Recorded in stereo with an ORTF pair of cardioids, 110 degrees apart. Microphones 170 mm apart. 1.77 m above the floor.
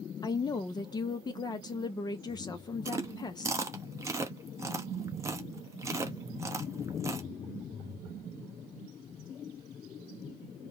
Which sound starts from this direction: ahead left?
A woman speaking, at 0.2 s.